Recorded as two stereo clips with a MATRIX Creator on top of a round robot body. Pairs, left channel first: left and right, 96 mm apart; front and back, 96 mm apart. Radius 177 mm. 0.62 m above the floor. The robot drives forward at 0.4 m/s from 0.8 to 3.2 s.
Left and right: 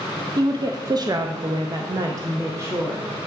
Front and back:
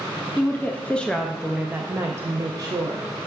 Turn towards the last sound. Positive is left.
turn(degrees=-150)